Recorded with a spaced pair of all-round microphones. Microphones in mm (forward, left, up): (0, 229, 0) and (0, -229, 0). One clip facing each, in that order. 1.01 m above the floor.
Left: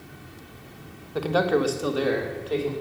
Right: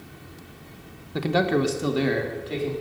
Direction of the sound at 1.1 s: 40° right (ahead or behind).